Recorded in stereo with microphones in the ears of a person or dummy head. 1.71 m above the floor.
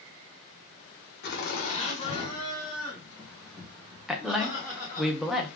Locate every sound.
1.2 s laughter: 55° left (ahead or behind), 1.1 m; by 5.1 s 5° right (ahead or behind), 2 m
4.1 s a woman speaking: 5° left (ahead or behind), 0.7 m